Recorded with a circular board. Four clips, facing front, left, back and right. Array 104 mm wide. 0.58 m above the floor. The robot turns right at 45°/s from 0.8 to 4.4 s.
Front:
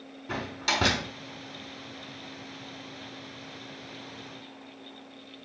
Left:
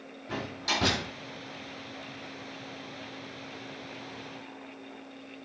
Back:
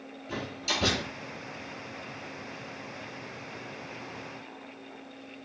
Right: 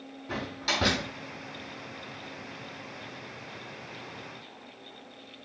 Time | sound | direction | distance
0.3 | a door slam | 20° right | 4.5 m